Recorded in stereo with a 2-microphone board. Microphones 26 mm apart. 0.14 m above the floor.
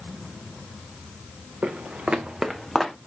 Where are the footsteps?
85° right, 0.7 m; by 2.9 s 10° left (ahead or behind), 0.9 m.